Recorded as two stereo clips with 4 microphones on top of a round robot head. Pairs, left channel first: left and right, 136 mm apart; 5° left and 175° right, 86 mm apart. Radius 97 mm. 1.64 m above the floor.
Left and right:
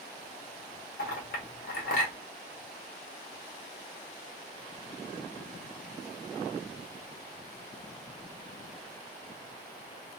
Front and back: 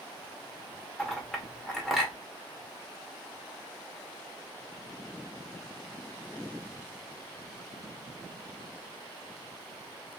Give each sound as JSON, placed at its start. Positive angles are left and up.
{"t": 1.0, "sound": "a clink", "azimuth_deg": 95, "distance_m": 1.0}